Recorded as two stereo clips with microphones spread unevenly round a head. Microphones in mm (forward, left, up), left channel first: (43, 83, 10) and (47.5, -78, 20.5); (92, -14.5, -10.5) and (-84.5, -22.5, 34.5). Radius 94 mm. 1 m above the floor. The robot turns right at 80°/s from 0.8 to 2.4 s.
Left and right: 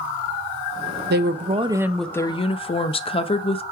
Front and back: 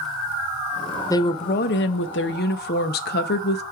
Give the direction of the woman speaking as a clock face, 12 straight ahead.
2 o'clock.